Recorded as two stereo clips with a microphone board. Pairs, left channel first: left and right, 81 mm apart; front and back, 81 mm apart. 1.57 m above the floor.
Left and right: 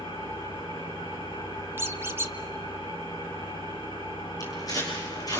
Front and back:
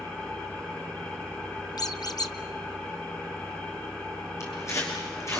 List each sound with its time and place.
0.0 s an engine running: 70° left, 10 m
1.8 s a squeak: 30° right, 1.1 m
4.4 s footsteps: 50° left, 5.5 m